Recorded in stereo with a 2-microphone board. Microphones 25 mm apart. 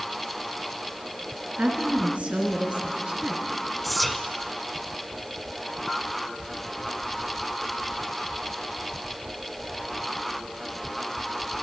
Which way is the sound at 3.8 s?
Centre (ahead or behind).